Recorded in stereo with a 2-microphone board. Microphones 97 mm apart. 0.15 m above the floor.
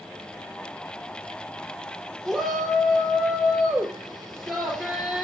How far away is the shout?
About 3 m.